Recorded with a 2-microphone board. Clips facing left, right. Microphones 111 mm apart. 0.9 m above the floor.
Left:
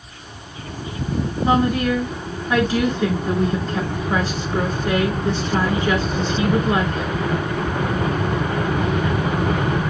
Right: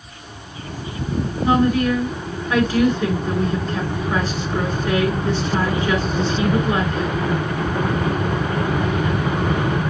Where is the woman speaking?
20° left (ahead or behind), 1.8 m.